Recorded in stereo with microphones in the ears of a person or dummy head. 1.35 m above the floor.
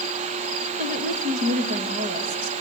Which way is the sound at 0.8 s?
35° right (ahead or behind).